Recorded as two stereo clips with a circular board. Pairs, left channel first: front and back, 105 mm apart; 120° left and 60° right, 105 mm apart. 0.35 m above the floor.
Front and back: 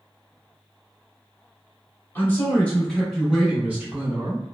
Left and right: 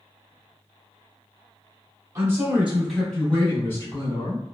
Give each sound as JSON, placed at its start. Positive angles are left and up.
{"t": 2.1, "sound": "a man speaking", "azimuth_deg": -40, "distance_m": 1.1}